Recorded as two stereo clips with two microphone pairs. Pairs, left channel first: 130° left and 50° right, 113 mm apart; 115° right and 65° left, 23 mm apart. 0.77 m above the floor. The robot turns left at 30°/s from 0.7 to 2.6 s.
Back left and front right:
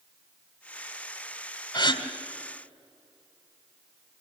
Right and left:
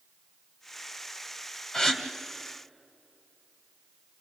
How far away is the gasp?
About 1.4 m.